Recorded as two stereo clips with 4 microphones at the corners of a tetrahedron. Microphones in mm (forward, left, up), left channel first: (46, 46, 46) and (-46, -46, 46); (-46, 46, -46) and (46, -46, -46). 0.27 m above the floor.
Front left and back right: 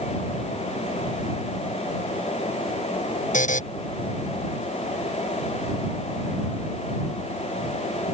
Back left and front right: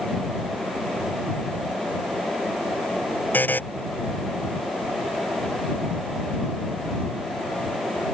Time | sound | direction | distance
3.3 | a buzzer | 60° left | ?